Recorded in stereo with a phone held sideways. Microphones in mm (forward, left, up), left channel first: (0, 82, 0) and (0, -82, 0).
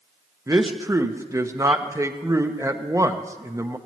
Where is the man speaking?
20° right (ahead or behind), 0.9 m.